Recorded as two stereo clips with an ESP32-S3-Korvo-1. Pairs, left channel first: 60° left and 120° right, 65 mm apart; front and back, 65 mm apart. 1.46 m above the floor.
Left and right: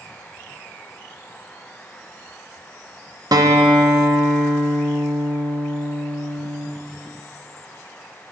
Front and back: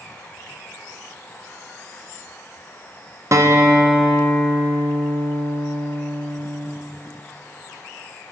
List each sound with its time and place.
3.3 s a guitar: 140° right, 1.2 m